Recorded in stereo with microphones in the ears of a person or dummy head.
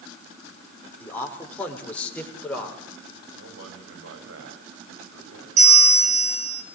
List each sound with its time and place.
1.0 s a man speaking: 10° left (ahead or behind), 6.5 m
3.4 s a man speaking: 90° right, 9.5 m
5.6 s a bell: 40° right (ahead or behind), 7.5 m